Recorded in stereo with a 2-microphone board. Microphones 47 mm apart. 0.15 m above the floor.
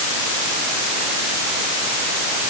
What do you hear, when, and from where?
Only background noise.